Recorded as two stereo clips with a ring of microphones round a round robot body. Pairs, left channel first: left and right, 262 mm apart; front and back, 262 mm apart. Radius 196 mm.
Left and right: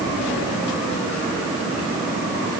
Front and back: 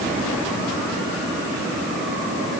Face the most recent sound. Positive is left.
No sound to turn to.